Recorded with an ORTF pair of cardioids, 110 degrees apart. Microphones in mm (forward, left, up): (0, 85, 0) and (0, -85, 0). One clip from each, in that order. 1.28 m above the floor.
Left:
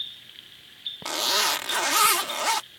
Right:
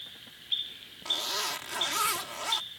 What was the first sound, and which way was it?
A zipper, 55° left.